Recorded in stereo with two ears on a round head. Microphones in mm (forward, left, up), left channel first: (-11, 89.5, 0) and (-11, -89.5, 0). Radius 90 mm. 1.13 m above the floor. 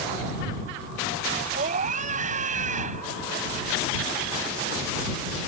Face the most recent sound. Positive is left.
turn(degrees=-40)  # may be behind; listen again after turning